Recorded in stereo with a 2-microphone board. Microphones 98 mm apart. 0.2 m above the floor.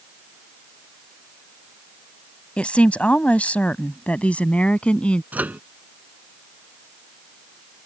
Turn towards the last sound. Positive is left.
turn(degrees=-15)  # may be behind; listen again after turning